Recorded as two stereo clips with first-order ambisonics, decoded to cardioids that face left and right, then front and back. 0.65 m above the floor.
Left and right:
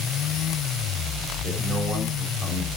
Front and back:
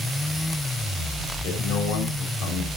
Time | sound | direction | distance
1.4 | a man speaking | 10° right | 3.5 m